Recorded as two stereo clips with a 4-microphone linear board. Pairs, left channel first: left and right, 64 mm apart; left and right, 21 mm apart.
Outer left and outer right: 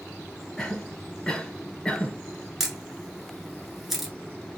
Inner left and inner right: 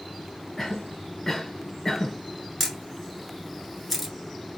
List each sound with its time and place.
0.6 s a cough: 10° left (ahead or behind), 1.6 m
2.6 s a camera shutter: centre (ahead or behind), 1.1 m